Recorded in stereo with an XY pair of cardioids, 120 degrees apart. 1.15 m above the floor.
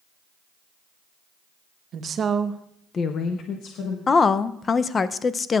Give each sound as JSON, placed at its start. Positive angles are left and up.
{"t": 1.9, "sound": "a woman speaking", "azimuth_deg": -55, "distance_m": 1.1}
{"t": 4.1, "sound": "a woman speaking", "azimuth_deg": 30, "distance_m": 0.5}